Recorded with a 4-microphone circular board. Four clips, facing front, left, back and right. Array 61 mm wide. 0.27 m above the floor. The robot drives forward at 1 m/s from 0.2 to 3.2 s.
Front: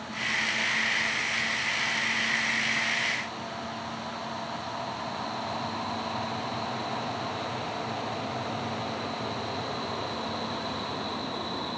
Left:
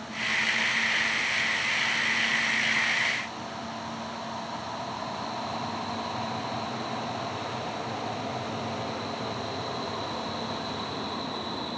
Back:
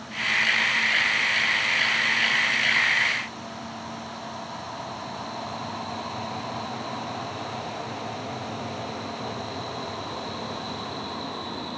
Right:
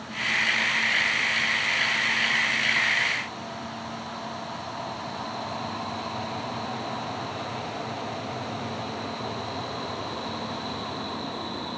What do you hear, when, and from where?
Only background noise.